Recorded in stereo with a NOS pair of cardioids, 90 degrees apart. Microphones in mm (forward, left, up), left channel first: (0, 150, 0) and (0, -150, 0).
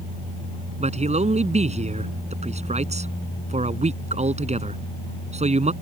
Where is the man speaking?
20° right.